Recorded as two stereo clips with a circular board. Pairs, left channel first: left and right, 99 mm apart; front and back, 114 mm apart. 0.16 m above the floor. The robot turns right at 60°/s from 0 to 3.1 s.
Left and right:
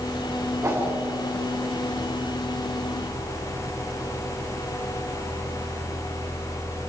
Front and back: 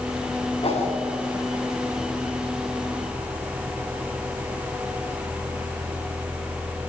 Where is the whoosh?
35° right, 9 m; by 0.9 s 15° right, 9 m.